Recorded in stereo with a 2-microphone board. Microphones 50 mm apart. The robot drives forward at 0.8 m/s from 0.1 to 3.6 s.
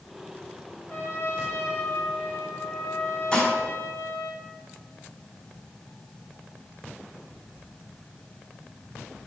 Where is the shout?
No shout in this recording.